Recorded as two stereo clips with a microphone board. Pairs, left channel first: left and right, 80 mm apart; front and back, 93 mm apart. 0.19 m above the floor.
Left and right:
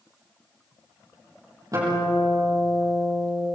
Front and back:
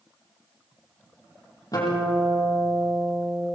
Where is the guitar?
50° right, 8 m.